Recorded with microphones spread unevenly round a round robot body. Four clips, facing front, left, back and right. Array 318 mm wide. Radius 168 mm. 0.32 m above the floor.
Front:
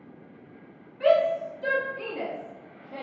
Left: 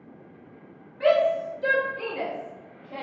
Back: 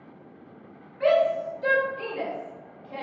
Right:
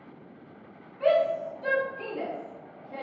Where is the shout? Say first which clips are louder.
Left 3 dB, even; 100° left, 1.7 m; by 3.0 s 130° right, 1.4 m.